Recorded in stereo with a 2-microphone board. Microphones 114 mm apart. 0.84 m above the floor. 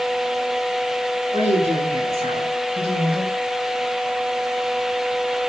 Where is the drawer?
No drawer in this recording.